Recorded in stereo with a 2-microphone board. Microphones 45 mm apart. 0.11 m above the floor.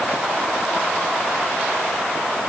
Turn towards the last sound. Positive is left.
No sound to turn to.